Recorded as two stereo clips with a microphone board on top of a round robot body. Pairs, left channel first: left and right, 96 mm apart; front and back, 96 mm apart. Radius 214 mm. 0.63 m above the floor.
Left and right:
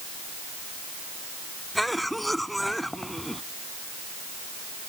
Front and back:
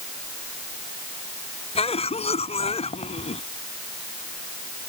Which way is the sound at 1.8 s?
Straight ahead.